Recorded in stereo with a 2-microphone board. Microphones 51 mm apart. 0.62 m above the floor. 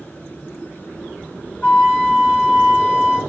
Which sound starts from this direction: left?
A flute, at 1.6 s.